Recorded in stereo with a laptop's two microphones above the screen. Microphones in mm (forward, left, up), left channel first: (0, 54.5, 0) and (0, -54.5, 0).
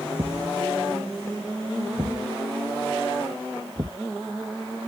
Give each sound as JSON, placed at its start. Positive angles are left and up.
{"t": 0.2, "sound": "a thud", "side_deg": -30}